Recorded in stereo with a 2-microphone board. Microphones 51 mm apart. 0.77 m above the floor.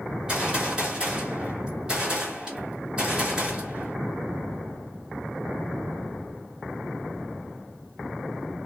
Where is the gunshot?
20° right (ahead or behind), 2 m.